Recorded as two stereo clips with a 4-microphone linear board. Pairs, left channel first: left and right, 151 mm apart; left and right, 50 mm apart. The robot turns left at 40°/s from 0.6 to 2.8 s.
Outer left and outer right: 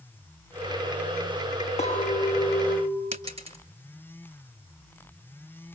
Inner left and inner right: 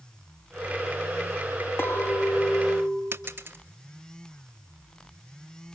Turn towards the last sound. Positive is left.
turn(degrees=-45)  # may be behind; listen again after turning